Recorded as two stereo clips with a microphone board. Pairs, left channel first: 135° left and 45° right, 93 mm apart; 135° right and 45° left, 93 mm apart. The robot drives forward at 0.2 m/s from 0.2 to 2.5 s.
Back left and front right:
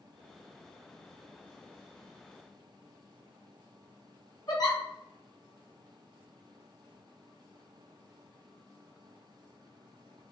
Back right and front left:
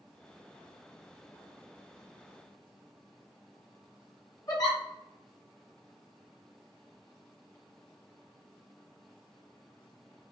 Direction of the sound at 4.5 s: Straight behind.